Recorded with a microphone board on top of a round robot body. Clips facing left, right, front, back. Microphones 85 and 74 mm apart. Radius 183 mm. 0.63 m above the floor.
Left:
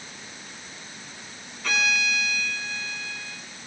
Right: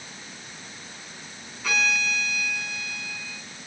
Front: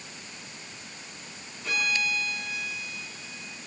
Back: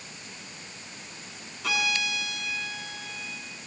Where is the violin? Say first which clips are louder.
Even, even; 175° right, 4.5 m.